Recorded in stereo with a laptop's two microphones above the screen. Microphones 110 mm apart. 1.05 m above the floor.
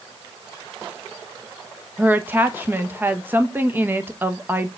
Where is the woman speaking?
20° right (ahead or behind), 1.2 m.